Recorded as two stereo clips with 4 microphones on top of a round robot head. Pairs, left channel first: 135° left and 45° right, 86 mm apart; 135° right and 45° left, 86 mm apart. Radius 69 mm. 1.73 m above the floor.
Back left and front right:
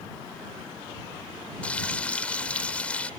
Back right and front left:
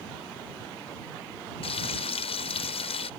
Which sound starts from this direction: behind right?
Frying, at 1.6 s.